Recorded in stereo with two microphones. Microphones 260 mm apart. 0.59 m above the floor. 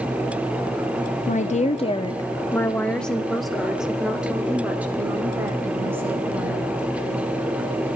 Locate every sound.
1.3 s a woman speaking: 30° left (ahead or behind), 0.8 m; by 6.8 s 10° right (ahead or behind), 3.5 m